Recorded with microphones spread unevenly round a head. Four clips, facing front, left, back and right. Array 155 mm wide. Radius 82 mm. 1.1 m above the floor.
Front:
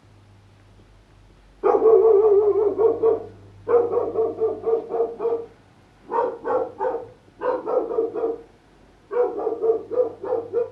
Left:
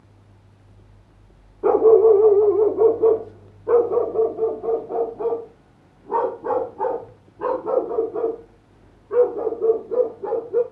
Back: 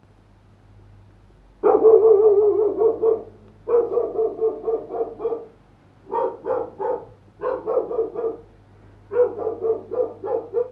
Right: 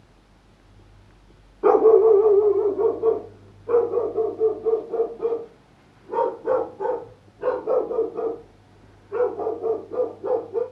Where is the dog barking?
130° left, 0.7 m; by 10.6 s 80° left, 5 m.